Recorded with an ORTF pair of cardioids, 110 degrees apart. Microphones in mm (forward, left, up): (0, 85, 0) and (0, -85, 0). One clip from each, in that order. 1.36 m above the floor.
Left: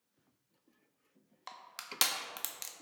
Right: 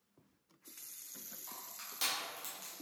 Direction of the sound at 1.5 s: 60° left.